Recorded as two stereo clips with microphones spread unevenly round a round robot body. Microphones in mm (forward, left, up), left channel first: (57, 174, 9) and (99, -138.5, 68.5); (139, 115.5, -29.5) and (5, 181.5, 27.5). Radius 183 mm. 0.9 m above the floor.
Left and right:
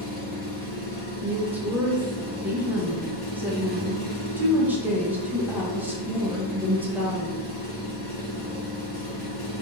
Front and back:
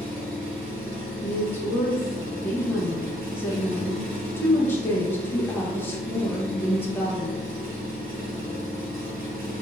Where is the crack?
No crack in this recording.